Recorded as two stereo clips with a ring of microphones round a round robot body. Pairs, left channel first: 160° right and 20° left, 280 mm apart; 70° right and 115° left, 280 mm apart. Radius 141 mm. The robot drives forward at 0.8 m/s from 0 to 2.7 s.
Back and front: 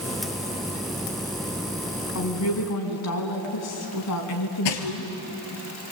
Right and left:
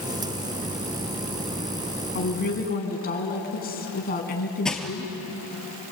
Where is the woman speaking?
120° right, 4.5 m; by 5.1 s 125° right, 5 m.